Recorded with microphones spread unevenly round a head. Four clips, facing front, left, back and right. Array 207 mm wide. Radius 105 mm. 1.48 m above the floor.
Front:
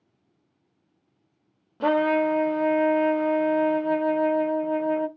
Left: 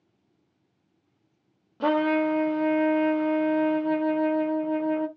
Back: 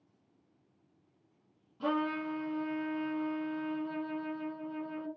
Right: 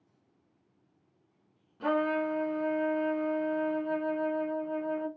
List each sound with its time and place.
1.8 s a trumpet: 35° left, 0.6 m